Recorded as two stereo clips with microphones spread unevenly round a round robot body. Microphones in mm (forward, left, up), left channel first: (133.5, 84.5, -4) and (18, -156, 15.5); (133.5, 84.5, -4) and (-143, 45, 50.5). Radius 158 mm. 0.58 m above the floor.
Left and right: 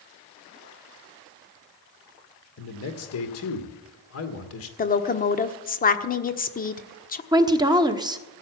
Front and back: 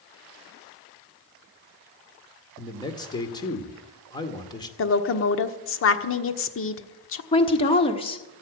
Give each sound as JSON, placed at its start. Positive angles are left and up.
{"t": 2.6, "sound": "a man speaking", "azimuth_deg": 75, "distance_m": 2.0}
{"t": 4.8, "sound": "a woman speaking", "azimuth_deg": 15, "distance_m": 1.2}
{"t": 7.3, "sound": "a woman speaking", "azimuth_deg": -40, "distance_m": 1.3}